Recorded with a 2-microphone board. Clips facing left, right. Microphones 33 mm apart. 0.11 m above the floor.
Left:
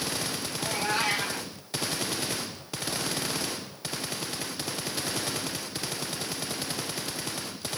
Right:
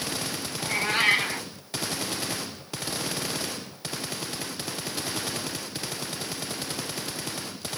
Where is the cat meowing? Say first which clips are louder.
Right 4 dB; 45° right (ahead or behind), 0.8 m.